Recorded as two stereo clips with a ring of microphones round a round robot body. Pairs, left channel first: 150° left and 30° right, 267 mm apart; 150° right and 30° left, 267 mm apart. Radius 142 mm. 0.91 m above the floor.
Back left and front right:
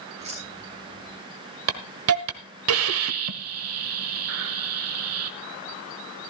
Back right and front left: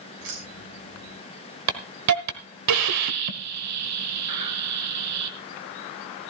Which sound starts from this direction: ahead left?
Keys jangling, at 0.2 s.